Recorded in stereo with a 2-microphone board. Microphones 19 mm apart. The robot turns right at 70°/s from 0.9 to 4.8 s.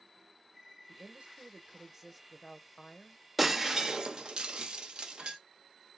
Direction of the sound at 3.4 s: 5° right (ahead or behind).